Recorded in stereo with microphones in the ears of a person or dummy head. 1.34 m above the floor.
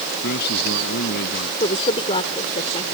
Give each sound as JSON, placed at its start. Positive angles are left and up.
{"t": 0.2, "sound": "a man speaking", "side_deg": 60}
{"t": 1.6, "sound": "a woman speaking", "side_deg": 35}